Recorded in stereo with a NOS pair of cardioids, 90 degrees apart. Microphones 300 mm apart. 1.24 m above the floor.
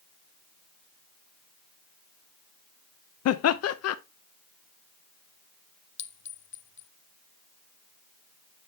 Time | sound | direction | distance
3.2 | laughter | 55° left | 0.8 m
6.0 | a clink | 40° left | 0.8 m